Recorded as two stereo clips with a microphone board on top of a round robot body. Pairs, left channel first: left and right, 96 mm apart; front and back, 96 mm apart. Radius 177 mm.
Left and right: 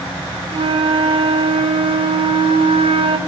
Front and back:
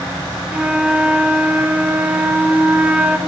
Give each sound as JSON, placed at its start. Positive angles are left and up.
{"t": 0.5, "sound": "a flute", "azimuth_deg": -105, "distance_m": 0.9}